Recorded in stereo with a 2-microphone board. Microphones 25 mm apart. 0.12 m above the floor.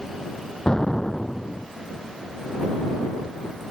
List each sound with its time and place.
0.7 s an explosion: 30° left (ahead or behind)